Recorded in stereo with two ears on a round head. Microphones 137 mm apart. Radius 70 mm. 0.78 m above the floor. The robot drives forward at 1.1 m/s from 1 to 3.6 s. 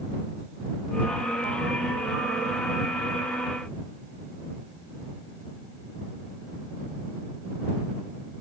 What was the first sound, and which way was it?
Only background noise.